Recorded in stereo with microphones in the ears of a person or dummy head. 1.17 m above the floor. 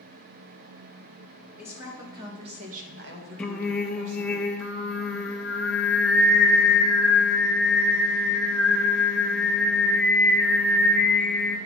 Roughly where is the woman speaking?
Centre.